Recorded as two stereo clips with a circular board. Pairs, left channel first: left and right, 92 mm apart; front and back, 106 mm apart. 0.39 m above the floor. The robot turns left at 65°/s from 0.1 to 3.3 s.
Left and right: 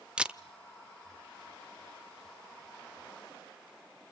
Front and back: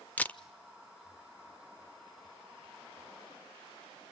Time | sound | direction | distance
0.2 | a camera shutter | 30° right | 0.5 m